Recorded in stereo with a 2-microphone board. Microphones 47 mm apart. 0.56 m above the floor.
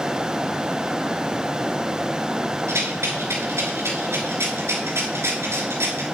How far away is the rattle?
About 3.5 m.